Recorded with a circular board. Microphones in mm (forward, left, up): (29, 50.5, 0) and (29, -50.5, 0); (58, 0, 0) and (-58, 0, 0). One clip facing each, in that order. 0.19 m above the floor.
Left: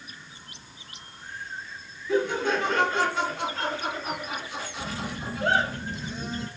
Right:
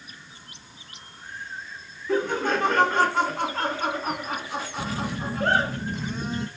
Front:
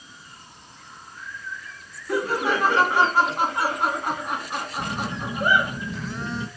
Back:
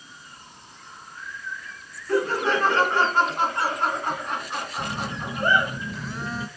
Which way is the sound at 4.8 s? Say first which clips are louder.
Right 4 dB, front 2 dB; 90° right.